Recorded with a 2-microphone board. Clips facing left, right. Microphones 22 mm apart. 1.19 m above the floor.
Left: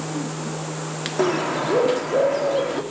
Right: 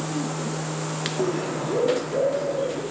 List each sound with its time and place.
1.2 s a bird: 55° left (ahead or behind), 2.5 m